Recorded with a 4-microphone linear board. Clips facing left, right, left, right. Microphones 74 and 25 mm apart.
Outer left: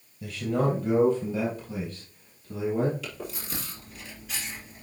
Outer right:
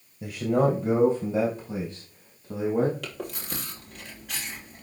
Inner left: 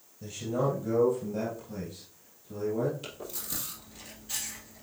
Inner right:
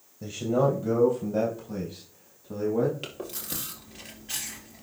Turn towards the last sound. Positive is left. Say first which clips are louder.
# outer right 2 dB, inner right 4 dB
turn(degrees=-65)  # may be behind; listen again after turning